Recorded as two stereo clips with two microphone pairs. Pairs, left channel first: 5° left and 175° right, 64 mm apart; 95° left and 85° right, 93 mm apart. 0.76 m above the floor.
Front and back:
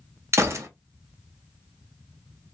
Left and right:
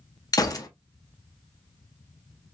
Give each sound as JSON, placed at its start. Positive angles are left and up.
{"t": 0.3, "sound": "a gunshot", "azimuth_deg": 140, "distance_m": 0.6}